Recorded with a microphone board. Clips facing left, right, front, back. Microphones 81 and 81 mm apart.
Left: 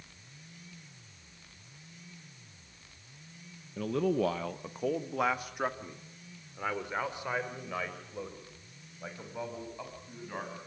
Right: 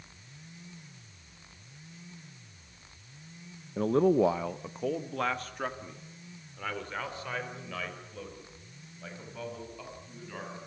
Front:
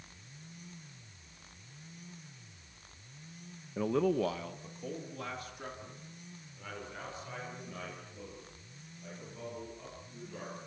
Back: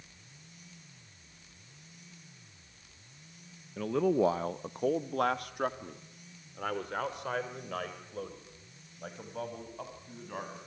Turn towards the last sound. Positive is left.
turn(degrees=160)